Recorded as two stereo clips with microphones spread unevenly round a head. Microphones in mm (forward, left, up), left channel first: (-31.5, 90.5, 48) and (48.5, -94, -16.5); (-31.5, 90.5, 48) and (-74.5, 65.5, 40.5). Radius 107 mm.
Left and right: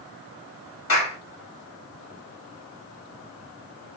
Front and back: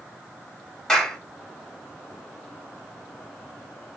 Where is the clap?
110° left, 3.5 m.